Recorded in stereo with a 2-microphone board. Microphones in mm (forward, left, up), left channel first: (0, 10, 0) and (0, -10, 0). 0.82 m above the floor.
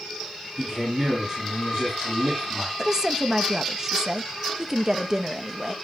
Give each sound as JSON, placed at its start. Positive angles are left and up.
{"t": 0.6, "sound": "a man speaking", "side_deg": -25, "distance_m": 5.5}
{"t": 2.8, "sound": "a woman speaking", "side_deg": -25, "distance_m": 0.7}